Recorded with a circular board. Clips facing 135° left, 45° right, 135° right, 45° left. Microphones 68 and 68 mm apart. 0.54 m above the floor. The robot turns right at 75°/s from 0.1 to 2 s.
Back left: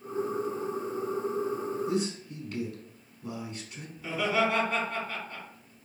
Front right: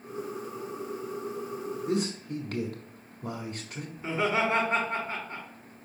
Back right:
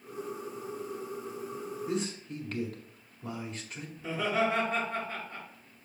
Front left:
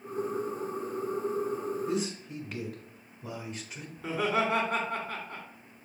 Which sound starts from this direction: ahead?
Laughter, at 4.0 s.